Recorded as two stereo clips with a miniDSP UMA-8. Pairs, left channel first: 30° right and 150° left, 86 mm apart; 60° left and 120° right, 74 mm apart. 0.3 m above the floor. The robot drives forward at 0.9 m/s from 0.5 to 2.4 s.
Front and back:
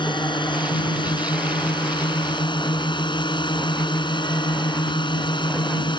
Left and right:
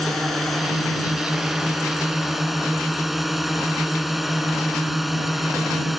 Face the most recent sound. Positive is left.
turn(degrees=-30)